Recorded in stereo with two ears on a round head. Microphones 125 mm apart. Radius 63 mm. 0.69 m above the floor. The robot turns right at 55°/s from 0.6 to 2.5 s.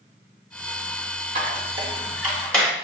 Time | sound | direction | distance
1.4 | a squeak | 55° right (ahead or behind) | 0.9 m